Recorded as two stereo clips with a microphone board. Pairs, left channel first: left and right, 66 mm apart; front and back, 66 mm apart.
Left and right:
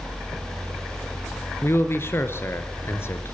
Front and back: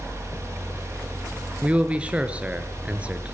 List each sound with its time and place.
1.6 s a man speaking: 115° left, 2 m